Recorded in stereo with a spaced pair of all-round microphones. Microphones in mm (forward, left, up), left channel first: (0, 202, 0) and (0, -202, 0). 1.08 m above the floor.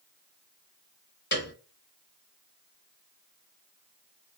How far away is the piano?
About 0.6 m.